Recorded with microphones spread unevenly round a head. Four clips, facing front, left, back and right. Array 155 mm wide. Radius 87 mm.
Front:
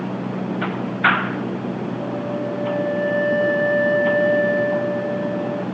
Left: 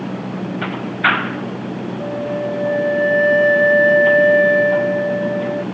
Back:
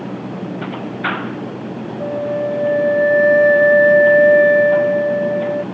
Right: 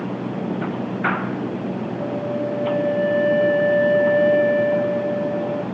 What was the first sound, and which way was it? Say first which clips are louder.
A flute: left 3 dB, back 9 dB; straight behind.